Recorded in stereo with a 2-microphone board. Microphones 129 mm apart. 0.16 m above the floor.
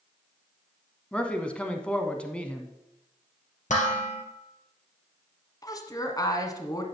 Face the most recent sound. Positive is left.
turn(degrees=30)  # may be behind; listen again after turning